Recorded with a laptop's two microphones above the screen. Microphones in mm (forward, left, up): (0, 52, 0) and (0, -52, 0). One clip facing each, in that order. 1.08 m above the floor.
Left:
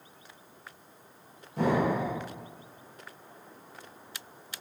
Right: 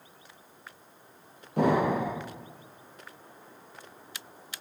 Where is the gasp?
No gasp in this recording.